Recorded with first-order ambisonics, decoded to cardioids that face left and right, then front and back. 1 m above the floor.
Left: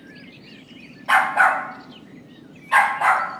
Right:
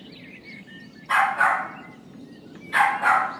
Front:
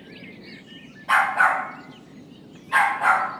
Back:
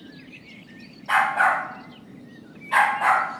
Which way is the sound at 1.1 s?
90° left.